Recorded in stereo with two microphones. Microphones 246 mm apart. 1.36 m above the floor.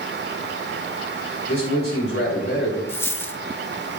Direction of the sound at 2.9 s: 10° left (ahead or behind).